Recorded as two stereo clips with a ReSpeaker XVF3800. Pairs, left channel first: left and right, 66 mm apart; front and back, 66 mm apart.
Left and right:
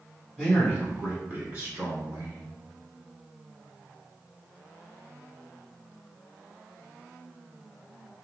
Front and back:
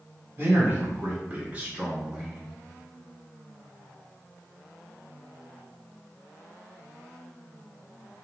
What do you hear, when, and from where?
0.4 s a man speaking: 165° right, 1.6 m; by 2.5 s 95° right, 1.8 m